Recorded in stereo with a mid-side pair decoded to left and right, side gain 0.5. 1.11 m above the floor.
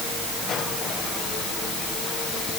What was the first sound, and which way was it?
Only background noise.